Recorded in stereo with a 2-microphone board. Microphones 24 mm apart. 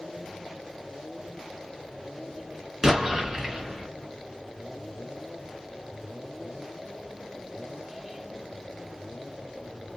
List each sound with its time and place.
2.8 s an explosion: 20° right (ahead or behind), 1.2 m